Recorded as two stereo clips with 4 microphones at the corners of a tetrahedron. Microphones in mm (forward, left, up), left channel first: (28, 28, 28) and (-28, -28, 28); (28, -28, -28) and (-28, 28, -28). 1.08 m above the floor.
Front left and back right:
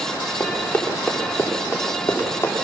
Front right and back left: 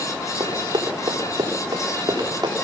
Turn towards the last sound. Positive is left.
turn(degrees=105)